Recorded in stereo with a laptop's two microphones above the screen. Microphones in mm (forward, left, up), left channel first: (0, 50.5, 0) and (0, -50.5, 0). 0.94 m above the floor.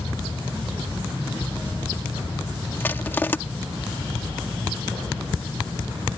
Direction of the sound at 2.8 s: 20° left (ahead or behind).